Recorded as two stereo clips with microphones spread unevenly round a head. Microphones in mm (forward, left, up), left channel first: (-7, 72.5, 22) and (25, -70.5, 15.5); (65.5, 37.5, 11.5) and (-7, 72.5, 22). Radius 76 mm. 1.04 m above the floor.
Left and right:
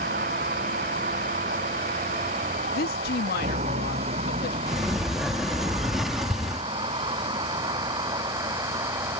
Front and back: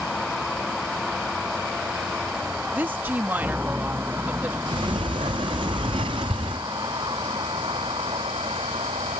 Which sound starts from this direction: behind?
A sliding door, at 4.7 s.